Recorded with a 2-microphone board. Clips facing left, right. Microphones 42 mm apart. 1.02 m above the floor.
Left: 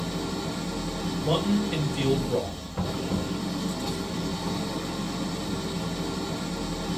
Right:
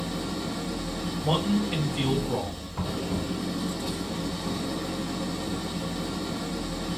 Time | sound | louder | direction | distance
0.0 | an engine running | left 1 dB | 5° right (ahead or behind) | 1.0 m
1.2 | a man speaking | even | 20° right (ahead or behind) | 1.4 m
2.7 | knocking | left 1 dB | centre (ahead or behind) | 1.7 m